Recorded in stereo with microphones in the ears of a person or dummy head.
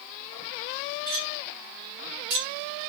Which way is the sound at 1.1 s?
65° right (ahead or behind).